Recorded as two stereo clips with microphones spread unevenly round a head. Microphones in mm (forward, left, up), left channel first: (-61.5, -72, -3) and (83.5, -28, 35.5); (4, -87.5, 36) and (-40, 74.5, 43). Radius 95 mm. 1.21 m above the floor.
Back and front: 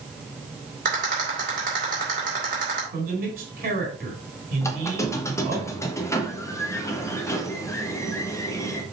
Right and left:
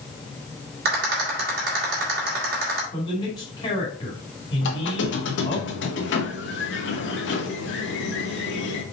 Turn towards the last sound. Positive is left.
turn(degrees=-90)